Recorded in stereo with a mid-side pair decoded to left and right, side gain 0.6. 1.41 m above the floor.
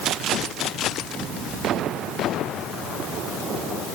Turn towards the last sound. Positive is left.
No sound to turn to.